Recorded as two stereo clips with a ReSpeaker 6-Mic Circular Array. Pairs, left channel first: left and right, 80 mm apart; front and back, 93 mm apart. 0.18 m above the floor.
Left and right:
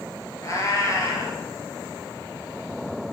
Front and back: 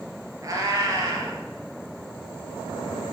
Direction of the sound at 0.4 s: 130° left.